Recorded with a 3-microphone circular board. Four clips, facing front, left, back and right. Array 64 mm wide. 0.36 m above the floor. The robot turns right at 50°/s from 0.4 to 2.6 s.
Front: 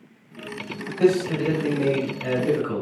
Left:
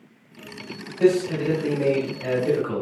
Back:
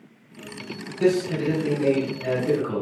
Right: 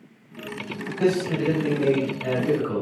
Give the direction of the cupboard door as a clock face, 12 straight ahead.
No cupboard door in this recording.